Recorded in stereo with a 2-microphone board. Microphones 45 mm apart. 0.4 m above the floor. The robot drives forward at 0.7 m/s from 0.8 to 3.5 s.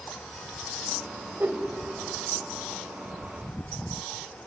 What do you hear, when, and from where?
1.4 s a whoosh: 50° right (ahead or behind), 1.3 m